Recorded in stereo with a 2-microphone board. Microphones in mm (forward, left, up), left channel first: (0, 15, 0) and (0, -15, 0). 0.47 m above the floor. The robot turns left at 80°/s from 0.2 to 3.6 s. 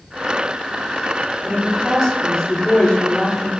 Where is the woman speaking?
140° right, 1.0 m; by 3.5 s 55° left, 1.0 m.